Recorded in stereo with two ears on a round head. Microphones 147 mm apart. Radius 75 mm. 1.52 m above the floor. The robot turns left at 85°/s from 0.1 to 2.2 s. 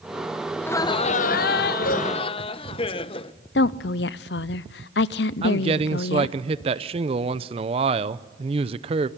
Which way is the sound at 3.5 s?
70° left (ahead or behind).